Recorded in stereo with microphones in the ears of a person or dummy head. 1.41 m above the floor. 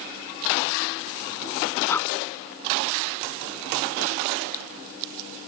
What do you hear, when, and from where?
1.9 s breathing: 15° left (ahead or behind)